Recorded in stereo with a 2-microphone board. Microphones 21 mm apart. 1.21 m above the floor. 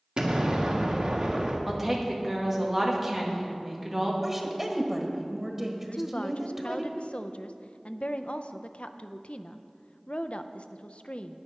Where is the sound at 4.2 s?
20° right (ahead or behind), 1.4 m.